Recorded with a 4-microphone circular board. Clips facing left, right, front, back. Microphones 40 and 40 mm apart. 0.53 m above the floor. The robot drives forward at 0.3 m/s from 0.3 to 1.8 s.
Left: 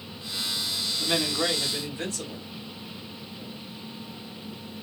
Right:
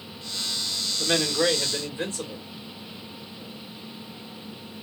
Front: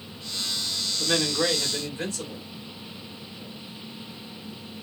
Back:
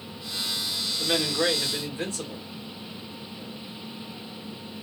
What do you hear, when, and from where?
1.0 s a man speaking: 125° right, 1.6 m; by 2.4 s 135° right, 1.7 m